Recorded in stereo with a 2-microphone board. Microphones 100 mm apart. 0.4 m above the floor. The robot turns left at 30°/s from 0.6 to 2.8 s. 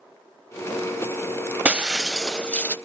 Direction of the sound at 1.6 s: 165° right.